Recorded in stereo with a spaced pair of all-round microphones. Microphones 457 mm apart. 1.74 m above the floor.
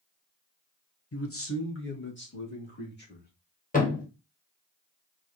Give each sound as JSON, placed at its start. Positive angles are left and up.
{"t": 1.1, "sound": "a man speaking", "side_deg": 30, "distance_m": 0.8}
{"t": 3.7, "sound": "a thud", "side_deg": 15, "distance_m": 1.2}